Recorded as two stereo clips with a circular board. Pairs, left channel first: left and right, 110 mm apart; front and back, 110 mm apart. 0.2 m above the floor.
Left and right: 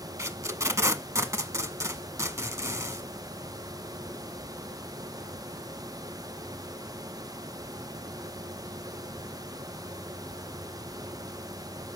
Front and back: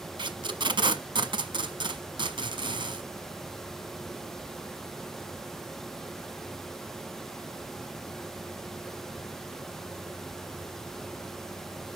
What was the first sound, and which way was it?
Tape being pulled, 150° right.